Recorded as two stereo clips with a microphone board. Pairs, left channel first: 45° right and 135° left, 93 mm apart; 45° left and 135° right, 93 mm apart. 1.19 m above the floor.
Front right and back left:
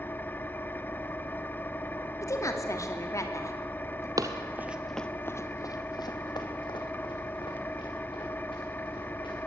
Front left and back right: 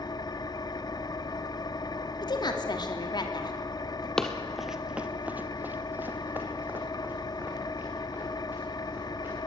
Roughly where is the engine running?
Ahead.